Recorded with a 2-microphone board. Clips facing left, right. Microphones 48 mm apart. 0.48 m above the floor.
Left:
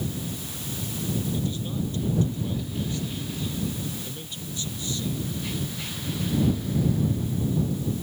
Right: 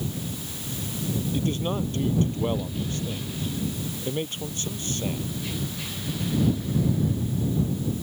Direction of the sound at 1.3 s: 50° right (ahead or behind).